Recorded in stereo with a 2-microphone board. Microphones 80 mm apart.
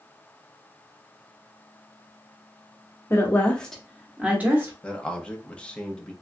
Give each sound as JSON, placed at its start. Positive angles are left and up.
{"t": 3.1, "sound": "a woman speaking", "side_deg": 30, "distance_m": 0.8}
{"t": 4.8, "sound": "a man speaking", "side_deg": 10, "distance_m": 0.7}